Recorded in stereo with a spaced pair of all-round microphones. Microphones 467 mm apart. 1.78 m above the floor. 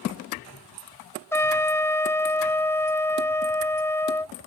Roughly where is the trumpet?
Centre.